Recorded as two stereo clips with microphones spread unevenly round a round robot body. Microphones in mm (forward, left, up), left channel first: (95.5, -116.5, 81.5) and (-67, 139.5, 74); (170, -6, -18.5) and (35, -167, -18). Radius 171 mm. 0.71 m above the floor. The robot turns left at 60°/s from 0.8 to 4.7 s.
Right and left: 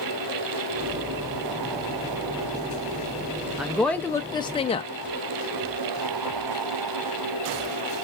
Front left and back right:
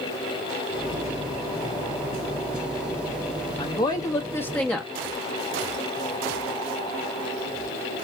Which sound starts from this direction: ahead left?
A woman speaking, at 3.6 s.